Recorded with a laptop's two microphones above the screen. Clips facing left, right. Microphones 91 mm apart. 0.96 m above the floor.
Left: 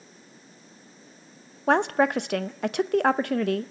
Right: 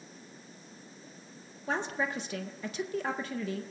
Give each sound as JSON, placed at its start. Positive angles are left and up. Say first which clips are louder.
{"t": 1.7, "sound": "a woman speaking", "louder": "left 11 dB", "side_deg": 70, "distance_m": 0.6}